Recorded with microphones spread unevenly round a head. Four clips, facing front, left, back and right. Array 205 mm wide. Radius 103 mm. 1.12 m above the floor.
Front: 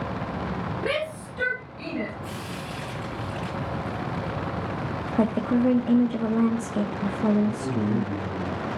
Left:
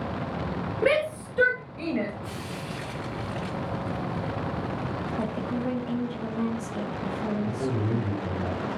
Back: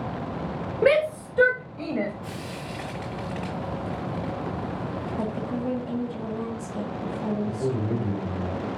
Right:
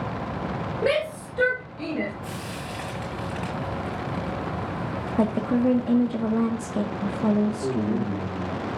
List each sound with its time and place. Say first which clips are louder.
0.8 s a shout: left 1 dB, back 11 dB; 170° left, 5 m; by 2.1 s 160° left, 5 m
2.2 s frying: right 1 dB, front 1 dB; 145° right, 6.5 m
5.2 s a woman speaking: right 10 dB, front 10 dB; 40° right, 1.7 m
7.5 s a man speaking: right 3 dB, front 1 dB; 140° left, 6 m